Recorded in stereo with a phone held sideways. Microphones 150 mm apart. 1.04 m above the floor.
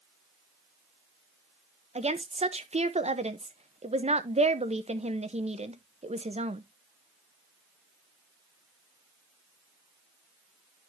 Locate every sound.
1.9 s a woman speaking: 45° right (ahead or behind), 0.8 m